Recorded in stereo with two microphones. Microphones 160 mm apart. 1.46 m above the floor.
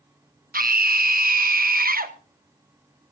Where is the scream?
65° right (ahead or behind), 1.1 m.